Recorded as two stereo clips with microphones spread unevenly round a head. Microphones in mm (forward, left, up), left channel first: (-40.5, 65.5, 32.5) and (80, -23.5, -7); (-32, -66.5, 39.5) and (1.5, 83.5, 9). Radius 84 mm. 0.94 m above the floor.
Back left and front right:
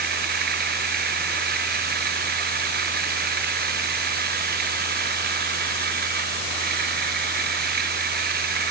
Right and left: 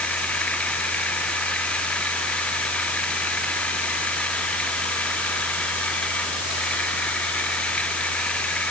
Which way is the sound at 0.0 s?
20° right.